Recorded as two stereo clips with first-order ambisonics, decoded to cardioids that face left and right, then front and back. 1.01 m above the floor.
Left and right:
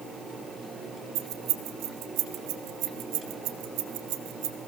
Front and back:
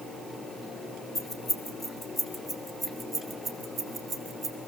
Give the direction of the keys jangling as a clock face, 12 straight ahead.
2 o'clock.